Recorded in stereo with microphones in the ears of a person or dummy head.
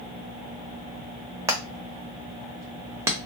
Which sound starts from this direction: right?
Hammering, at 1.5 s.